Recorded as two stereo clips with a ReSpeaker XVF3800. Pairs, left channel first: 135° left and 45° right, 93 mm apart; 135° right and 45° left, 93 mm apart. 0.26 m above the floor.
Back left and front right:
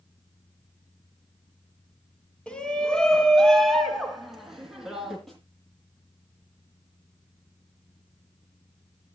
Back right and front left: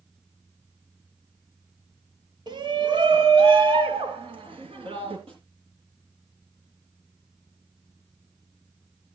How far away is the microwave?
No microwave in this recording.